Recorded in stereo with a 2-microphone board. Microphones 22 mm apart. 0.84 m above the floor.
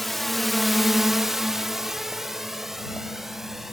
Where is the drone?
5° left (ahead or behind); by 3.7 s 15° right (ahead or behind).